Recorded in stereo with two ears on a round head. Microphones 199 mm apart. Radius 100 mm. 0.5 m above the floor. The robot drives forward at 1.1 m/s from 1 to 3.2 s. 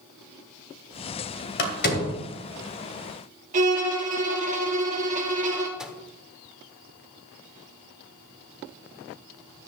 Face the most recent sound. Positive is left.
turn(degrees=-5)  # may be behind; listen again after turning